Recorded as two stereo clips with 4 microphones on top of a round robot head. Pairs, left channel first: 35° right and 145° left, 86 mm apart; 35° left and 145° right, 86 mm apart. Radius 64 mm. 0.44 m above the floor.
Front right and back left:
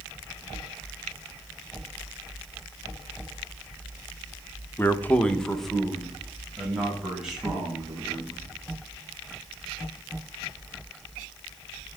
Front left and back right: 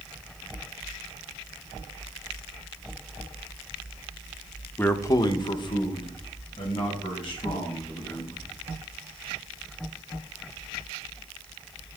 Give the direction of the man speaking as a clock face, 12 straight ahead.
12 o'clock.